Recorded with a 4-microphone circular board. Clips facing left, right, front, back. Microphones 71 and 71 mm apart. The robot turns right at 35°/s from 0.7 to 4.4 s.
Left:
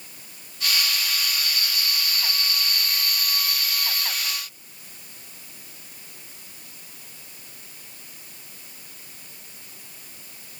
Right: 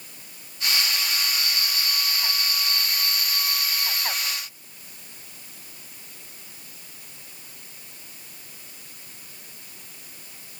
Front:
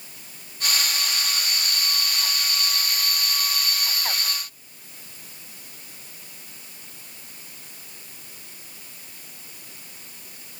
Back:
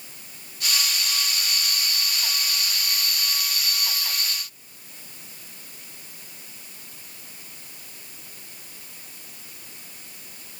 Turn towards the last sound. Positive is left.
No sound to turn to.